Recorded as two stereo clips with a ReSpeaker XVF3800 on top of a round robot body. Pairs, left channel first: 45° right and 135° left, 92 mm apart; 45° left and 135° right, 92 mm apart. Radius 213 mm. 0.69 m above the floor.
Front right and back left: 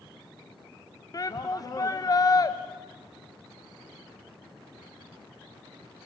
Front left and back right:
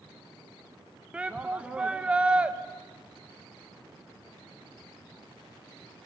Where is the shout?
65° right, 1.4 m.